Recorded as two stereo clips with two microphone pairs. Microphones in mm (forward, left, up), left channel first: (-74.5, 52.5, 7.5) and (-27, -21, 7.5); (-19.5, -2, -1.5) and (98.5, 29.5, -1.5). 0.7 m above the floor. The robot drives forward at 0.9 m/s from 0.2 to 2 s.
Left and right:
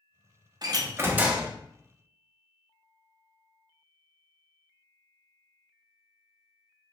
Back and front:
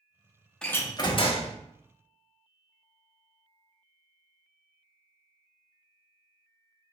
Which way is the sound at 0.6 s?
80° right.